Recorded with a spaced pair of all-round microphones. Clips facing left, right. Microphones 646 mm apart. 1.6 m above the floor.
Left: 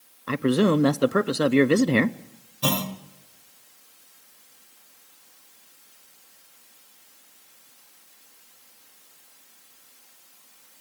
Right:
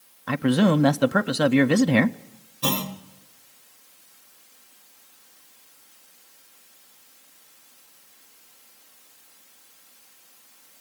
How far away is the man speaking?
About 0.5 m.